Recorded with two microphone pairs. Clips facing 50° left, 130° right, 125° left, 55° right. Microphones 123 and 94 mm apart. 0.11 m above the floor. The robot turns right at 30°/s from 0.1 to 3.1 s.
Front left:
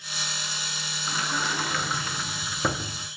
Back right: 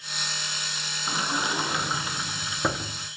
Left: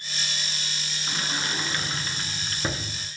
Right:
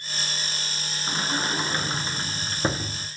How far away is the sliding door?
About 0.7 m.